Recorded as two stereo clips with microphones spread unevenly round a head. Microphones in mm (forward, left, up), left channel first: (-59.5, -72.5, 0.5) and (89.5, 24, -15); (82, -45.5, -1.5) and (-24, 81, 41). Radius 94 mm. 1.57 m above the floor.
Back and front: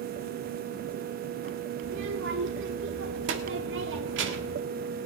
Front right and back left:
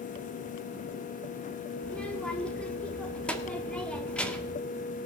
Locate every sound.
1.8 s a child speaking: 40° left, 1.8 m